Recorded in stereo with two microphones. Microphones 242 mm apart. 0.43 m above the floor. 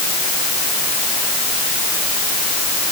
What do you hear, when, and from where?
Only background noise.